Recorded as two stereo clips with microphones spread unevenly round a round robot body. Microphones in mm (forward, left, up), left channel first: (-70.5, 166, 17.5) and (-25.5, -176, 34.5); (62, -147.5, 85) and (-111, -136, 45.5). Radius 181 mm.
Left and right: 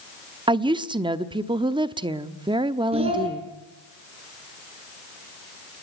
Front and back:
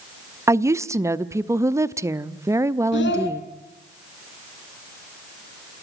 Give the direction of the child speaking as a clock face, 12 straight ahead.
12 o'clock.